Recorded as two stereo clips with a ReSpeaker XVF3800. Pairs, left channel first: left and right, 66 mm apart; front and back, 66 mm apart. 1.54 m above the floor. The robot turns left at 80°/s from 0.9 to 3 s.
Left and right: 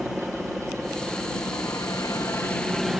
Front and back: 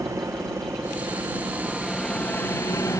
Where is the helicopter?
175° right; by 3.0 s 5° right.